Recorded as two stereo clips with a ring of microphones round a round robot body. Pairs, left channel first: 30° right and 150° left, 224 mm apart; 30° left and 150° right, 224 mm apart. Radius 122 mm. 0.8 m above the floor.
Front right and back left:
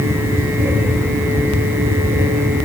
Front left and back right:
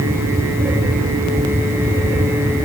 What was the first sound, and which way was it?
Only background noise.